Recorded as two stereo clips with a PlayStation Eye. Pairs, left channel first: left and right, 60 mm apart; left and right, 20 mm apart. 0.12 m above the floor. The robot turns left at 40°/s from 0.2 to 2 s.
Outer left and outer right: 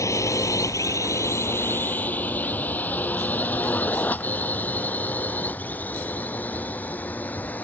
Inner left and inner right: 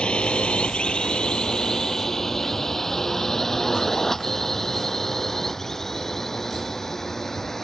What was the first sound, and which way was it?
A drone, 60° left (ahead or behind).